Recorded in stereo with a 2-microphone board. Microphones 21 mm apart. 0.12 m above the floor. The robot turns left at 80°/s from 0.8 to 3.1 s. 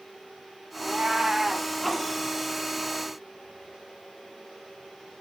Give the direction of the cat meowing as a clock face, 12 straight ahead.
4 o'clock.